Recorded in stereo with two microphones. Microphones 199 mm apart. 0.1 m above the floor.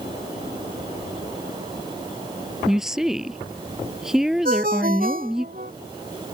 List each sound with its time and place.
2.7 s a woman speaking: centre (ahead or behind)
4.5 s a ringtone: 50° right (ahead or behind)